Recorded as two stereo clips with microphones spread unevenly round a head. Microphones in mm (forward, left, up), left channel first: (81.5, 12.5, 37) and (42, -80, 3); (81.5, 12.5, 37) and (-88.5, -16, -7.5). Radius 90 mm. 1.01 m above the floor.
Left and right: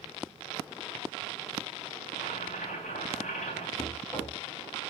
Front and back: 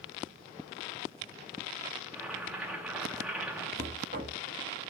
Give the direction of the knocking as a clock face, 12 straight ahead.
7 o'clock.